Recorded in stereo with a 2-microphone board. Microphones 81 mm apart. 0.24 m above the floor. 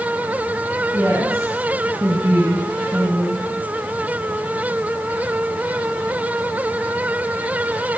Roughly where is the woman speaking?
Right.